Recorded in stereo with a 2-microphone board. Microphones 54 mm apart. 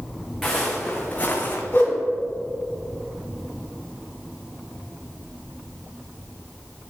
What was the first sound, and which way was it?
Footsteps, 5° left (ahead or behind).